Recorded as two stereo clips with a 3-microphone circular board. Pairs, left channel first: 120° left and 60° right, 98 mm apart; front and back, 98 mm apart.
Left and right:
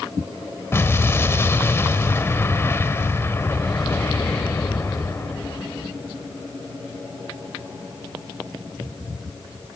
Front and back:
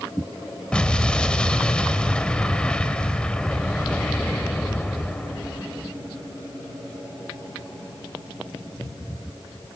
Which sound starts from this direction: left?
An explosion, at 0.7 s.